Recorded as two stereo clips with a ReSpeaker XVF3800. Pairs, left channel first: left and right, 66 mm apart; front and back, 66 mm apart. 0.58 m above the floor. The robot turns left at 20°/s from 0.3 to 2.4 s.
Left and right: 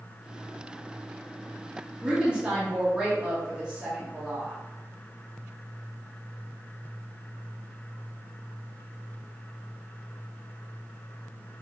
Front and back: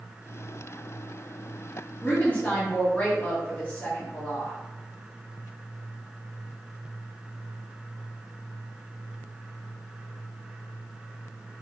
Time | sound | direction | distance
2.0 | a woman speaking | 25° right | 0.9 m